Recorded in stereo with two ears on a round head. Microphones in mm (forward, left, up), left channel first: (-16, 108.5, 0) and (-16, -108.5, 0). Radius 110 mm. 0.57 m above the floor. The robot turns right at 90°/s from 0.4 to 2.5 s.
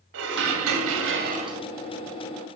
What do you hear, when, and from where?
0.1 s dishes clattering: 120° right, 0.9 m; by 1.6 s 10° right, 0.9 m